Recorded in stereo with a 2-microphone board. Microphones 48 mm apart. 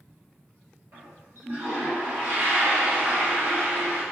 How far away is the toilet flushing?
About 1.2 m.